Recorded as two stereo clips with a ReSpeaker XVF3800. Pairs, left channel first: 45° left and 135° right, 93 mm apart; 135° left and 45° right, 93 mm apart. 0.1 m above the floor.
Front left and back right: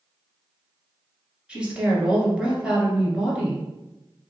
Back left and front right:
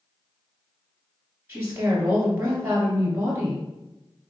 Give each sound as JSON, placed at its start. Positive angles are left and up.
{"t": 1.5, "sound": "a woman speaking", "azimuth_deg": -65, "distance_m": 1.5}